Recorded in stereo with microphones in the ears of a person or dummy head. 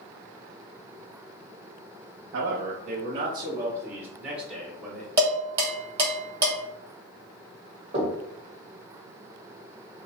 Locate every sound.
2.3 s a man speaking: 65° right (ahead or behind), 0.6 m; by 5.1 s centre (ahead or behind), 1.7 m
5.2 s dishes clattering: 15° right (ahead or behind), 1.5 m
7.9 s knocking: 30° right (ahead or behind), 1.2 m